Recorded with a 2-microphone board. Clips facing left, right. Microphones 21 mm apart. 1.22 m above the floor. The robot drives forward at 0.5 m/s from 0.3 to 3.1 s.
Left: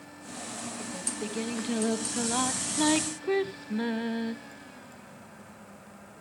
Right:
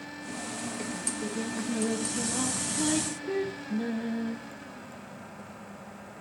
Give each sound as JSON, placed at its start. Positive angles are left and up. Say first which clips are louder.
{"t": 0.9, "sound": "singing", "louder": "right 1 dB", "side_deg": 50, "distance_m": 1.8}